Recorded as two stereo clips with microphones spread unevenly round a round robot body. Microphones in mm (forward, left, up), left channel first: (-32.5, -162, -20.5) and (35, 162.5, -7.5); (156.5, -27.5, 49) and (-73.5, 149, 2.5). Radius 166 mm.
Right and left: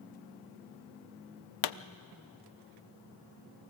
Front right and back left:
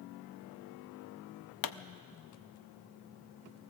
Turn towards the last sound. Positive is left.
turn(degrees=-70)